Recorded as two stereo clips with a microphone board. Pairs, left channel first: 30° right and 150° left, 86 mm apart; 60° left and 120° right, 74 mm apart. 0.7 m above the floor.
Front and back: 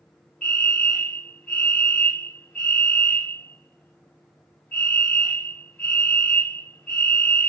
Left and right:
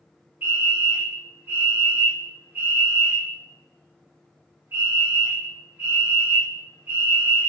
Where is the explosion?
I don't hear an explosion.